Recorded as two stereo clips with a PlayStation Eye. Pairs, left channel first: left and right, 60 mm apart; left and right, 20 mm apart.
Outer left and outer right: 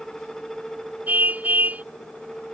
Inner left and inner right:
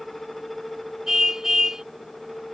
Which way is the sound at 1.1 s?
25° right (ahead or behind).